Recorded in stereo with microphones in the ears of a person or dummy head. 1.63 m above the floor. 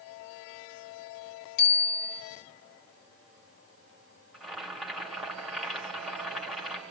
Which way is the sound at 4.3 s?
Centre (ahead or behind).